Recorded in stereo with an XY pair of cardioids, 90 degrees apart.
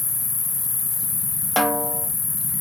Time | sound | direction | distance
0.0 | an insect | 70° left | 1.8 m
1.6 | a snare drum | straight ahead | 0.8 m